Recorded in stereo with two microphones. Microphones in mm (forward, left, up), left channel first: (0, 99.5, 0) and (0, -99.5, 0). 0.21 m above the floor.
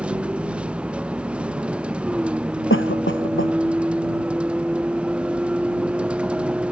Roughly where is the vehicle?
Centre.